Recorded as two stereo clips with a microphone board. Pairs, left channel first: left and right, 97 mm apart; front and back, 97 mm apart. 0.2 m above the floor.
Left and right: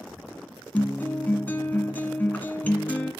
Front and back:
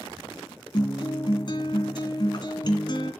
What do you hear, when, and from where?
0.7 s a guitar: 20° left, 1.9 m